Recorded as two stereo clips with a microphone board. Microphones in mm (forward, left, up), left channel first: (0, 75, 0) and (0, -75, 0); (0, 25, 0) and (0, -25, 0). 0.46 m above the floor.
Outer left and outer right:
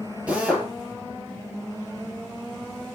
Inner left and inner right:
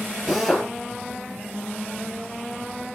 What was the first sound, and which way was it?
A drill, 5° right (ahead or behind).